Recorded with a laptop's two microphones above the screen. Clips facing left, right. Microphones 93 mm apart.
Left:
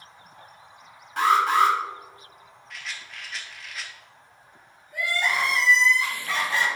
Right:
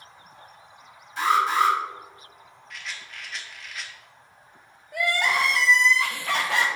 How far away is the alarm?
About 1.0 m.